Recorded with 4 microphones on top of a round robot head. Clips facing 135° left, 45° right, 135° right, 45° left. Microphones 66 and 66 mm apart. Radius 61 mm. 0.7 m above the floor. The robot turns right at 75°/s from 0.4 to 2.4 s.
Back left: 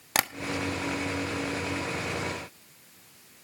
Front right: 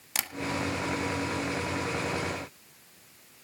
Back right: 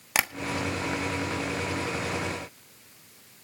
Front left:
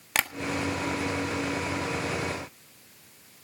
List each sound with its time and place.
0.1 s tapping: 145° left, 1.4 m